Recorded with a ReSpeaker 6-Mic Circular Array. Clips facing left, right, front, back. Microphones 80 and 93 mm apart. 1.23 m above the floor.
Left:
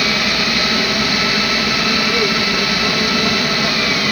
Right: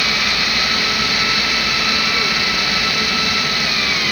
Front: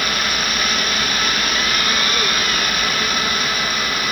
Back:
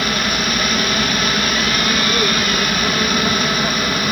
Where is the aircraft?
120° left; by 4.1 s 125° left.